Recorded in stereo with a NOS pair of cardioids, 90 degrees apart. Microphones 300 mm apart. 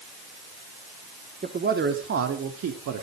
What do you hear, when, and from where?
1.4 s a man speaking: 30° right, 3 m; by 3.0 s 65° right, 3.5 m